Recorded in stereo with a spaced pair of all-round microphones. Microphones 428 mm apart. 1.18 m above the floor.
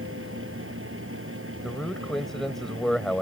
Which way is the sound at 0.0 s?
30° right (ahead or behind).